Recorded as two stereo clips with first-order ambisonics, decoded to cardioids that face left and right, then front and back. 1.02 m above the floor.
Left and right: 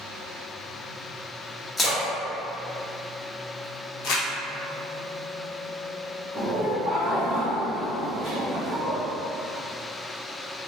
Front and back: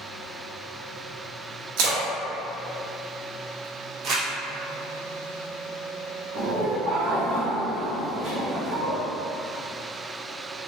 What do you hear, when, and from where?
1.8 s a splash: 165° left, 0.6 m
4.0 s crumpling: 125° left, 0.7 m
6.3 s laughter: 165° right, 1.0 m